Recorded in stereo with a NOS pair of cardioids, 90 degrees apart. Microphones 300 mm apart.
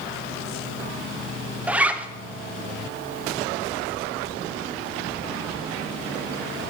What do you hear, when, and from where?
1.7 s a zipper: 5° right, 1.0 m